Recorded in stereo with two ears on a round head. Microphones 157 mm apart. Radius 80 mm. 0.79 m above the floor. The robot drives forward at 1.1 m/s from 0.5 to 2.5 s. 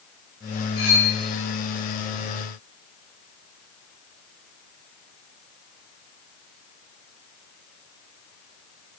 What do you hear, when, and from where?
0.8 s cutlery clinking: 70° left (ahead or behind), 7 m; by 1.1 s 65° left (ahead or behind), 7 m